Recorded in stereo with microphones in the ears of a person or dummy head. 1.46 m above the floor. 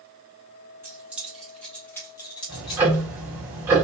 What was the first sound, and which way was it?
Keys jangling, 10° right (ahead or behind).